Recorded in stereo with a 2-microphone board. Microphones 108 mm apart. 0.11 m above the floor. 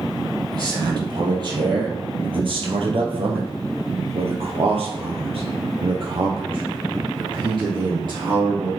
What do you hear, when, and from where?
0.5 s a man speaking: 40° right (ahead or behind), 3.5 m